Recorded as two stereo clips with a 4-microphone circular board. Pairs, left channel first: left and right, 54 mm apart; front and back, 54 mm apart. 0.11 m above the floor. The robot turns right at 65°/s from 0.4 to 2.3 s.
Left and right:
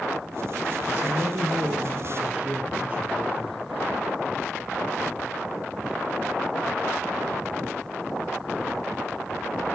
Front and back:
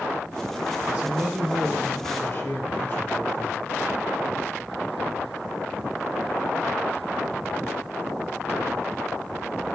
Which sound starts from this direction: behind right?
A man speaking, at 0.9 s.